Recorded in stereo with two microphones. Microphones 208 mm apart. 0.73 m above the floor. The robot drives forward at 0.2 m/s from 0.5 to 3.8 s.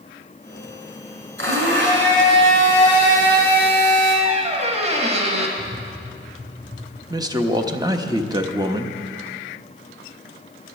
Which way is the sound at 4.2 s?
30° right (ahead or behind).